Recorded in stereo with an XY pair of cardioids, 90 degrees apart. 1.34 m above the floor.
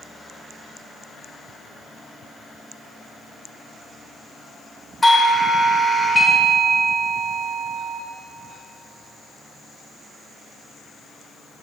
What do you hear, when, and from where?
5.0 s a doorbell: 20° left, 1.1 m